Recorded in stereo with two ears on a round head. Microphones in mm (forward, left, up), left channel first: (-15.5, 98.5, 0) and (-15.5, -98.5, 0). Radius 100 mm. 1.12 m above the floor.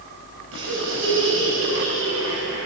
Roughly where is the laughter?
Right.